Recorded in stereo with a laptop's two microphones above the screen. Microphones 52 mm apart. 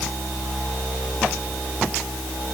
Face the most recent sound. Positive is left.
No sound to turn to.